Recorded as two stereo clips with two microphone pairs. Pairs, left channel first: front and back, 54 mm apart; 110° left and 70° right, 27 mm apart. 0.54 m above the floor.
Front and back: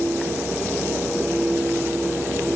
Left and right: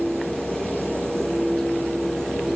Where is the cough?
I don't hear a cough.